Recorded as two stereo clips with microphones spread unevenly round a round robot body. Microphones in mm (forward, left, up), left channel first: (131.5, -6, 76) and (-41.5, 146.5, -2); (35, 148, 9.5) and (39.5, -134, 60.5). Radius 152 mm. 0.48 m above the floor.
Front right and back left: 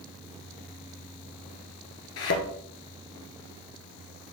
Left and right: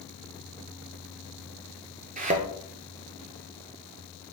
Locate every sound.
2.2 s a thud: 30° right, 1.8 m